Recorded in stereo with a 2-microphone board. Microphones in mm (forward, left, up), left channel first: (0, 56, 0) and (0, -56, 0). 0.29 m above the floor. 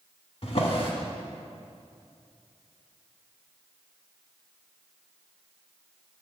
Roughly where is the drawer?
Left.